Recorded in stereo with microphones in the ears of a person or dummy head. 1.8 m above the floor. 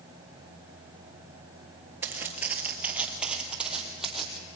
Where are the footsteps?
15° right (ahead or behind), 1.9 m; by 4.4 s 5° right (ahead or behind), 3.5 m.